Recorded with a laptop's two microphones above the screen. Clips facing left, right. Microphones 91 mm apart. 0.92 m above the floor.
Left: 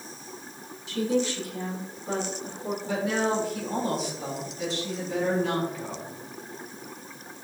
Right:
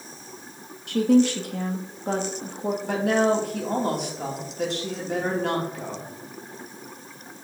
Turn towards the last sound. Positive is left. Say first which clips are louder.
# right 5 dB
turn(degrees=-60)  # may be behind; listen again after turning